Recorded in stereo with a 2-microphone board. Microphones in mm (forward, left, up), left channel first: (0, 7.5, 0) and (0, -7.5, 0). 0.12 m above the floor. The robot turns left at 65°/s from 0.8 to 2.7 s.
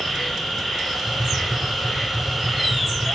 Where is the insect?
135° left, 6.5 m; by 3.1 s 15° left, 6.5 m.